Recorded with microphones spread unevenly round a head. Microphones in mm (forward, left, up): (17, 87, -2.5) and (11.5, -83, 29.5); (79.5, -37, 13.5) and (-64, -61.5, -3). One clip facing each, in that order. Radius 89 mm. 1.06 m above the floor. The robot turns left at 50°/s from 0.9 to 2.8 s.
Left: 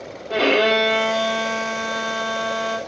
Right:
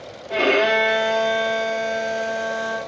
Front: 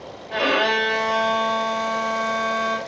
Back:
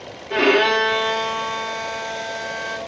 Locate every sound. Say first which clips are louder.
0.3 s a violin: left 1 dB, back 5 dB; 175° left, 3.5 m; by 2.8 s 85° left, 3.5 m